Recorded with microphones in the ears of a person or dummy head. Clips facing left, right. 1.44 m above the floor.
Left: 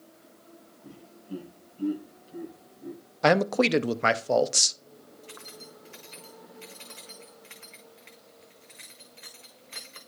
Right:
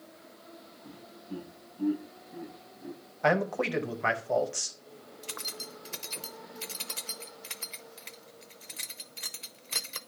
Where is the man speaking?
55° left (ahead or behind), 0.7 m.